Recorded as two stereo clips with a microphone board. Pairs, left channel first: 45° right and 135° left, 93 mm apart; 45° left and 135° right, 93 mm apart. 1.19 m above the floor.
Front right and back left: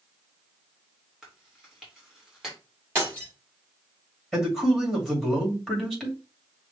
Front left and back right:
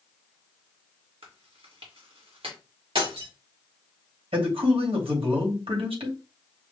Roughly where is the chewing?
Behind right.